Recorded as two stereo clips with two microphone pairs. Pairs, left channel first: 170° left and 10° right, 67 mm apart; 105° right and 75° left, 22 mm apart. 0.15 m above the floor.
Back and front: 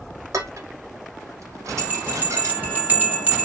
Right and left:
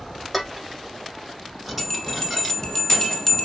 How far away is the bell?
About 1.0 m.